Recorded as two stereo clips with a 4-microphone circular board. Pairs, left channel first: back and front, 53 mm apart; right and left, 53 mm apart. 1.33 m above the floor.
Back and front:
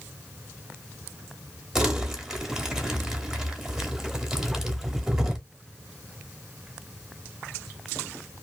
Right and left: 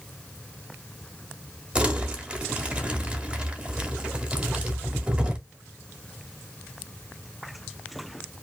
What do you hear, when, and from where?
1.8 s crumpling: 60° left, 0.9 m